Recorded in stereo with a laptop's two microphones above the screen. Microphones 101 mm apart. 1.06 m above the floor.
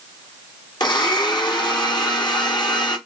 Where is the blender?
45° left (ahead or behind), 0.8 m.